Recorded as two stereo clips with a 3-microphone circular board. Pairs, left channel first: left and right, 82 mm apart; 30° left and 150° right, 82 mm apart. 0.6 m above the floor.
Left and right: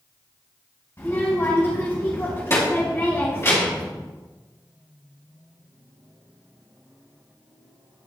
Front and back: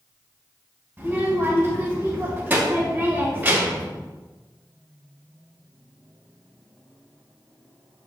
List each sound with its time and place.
1.0 s a child speaking: 145° left, 2.5 m